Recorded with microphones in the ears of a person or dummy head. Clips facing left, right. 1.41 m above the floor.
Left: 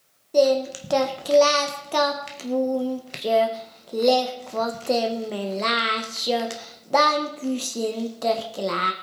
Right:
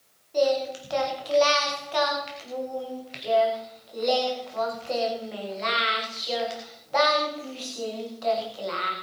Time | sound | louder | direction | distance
0.3 | singing | left 5 dB | 55° left (ahead or behind) | 1.5 m